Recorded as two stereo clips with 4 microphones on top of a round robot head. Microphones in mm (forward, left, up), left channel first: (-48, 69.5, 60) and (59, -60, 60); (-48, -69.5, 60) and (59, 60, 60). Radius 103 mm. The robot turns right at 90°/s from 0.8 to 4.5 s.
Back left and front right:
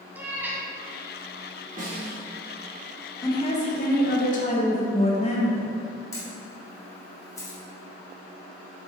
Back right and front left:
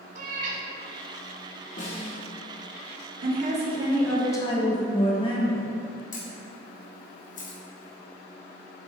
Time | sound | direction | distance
0.1 | a cat meowing | 25° left | 0.6 m
1.8 | a snare drum | 90° right | 1.5 m
3.2 | a woman speaking | 60° left | 1.3 m
6.1 | a camera shutter | 160° right | 1.6 m